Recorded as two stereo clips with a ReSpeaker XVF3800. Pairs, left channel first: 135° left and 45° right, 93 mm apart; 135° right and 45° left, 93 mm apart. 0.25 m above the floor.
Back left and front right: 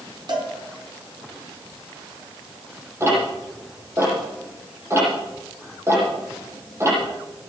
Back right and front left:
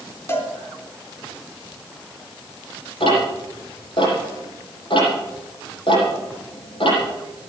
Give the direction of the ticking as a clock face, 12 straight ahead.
4 o'clock.